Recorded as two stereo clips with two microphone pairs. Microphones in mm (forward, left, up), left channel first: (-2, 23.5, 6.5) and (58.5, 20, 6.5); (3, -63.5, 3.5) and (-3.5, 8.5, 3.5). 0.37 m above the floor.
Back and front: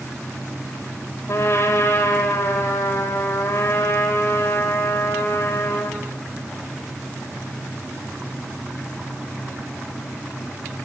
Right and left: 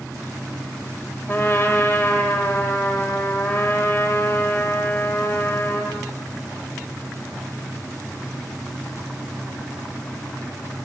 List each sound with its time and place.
1.3 s a trumpet: 140° right, 2.5 m